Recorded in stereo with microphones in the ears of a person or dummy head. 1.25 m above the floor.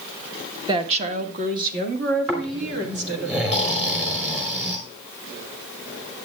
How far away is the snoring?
About 3 m.